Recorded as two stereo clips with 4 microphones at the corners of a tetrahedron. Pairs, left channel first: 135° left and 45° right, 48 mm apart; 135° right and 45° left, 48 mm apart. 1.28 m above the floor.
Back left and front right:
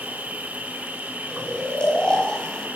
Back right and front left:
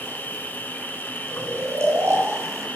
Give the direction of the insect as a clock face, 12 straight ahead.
3 o'clock.